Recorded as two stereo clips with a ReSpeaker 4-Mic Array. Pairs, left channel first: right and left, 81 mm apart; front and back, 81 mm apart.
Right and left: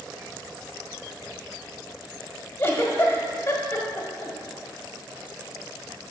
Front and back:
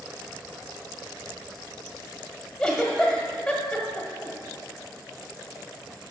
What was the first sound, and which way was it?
A giggle, 75° right.